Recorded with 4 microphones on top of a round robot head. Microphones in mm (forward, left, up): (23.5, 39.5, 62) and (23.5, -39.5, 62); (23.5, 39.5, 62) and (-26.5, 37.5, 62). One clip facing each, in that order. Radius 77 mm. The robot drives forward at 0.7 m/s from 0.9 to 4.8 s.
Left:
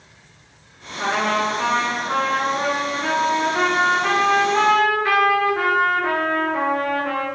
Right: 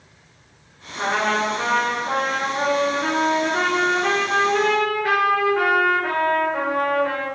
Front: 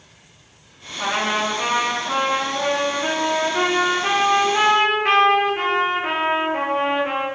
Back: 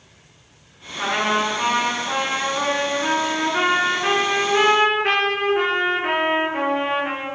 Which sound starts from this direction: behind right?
A trumpet, at 1.0 s.